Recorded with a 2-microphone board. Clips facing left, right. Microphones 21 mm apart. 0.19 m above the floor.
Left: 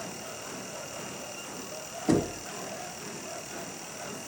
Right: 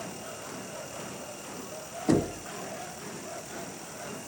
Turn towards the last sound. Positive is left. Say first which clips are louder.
# even
turn(degrees=5)  # may be behind; listen again after turning